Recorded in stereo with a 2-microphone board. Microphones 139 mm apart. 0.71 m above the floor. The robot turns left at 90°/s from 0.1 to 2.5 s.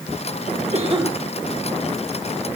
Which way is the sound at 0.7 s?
120° right.